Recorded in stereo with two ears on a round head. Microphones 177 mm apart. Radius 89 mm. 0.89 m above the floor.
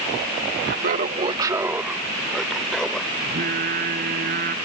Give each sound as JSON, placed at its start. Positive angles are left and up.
{"t": 0.6, "sound": "laughter", "side_deg": -55}
{"t": 3.2, "sound": "singing", "side_deg": -45}